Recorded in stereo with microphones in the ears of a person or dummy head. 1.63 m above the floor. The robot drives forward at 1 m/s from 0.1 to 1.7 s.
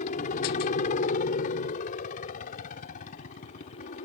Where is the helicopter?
45° left (ahead or behind); by 4.0 s 50° left (ahead or behind).